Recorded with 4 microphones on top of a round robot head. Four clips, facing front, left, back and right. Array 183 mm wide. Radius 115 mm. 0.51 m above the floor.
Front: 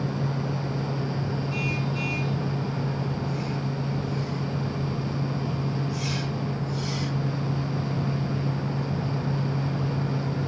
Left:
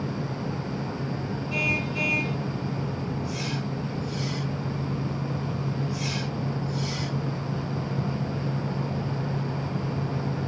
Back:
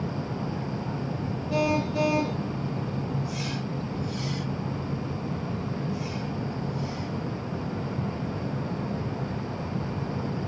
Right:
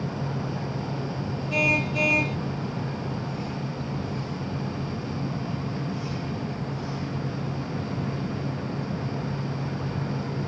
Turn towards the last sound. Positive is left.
turn(degrees=-155)